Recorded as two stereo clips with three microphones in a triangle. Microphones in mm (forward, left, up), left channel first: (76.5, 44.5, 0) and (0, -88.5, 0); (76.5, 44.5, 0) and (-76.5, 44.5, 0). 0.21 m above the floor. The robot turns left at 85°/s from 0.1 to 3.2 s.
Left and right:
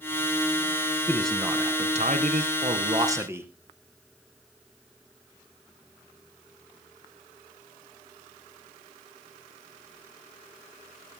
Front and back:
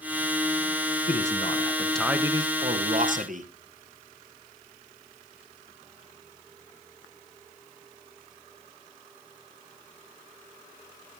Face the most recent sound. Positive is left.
turn(degrees=170)